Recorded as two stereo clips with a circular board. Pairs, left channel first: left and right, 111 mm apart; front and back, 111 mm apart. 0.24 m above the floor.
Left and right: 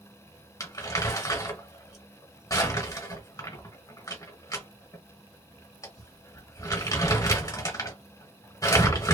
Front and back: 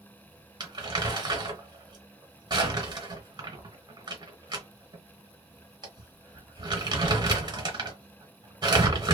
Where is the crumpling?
145° left, 1.4 m.